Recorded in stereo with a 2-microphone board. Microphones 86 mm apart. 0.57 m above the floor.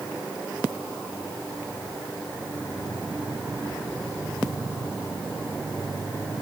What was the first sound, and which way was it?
Only background noise.